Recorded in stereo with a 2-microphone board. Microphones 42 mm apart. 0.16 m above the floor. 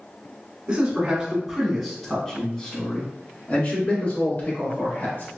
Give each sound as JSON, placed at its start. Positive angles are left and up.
{"t": 0.7, "sound": "a man speaking", "side_deg": -20, "distance_m": 1.3}